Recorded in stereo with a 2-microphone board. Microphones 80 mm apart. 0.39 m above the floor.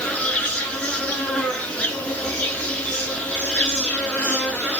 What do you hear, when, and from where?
0.0 s an insect: 15° left (ahead or behind), 0.8 m